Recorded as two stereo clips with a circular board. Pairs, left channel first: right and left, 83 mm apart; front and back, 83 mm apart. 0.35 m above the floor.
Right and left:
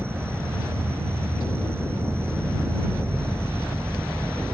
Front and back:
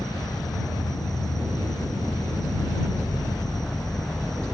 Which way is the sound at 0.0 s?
30° left.